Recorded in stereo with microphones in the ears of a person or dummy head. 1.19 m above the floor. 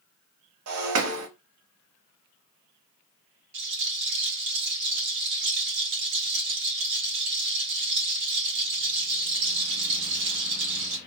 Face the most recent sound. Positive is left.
turn(degrees=-55)  # may be behind; listen again after turning